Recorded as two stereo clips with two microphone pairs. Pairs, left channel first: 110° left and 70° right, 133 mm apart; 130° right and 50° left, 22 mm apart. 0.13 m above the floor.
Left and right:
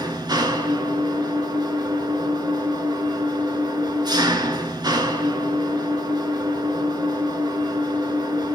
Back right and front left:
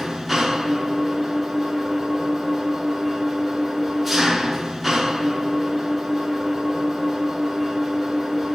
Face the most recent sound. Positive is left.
turn(degrees=-35)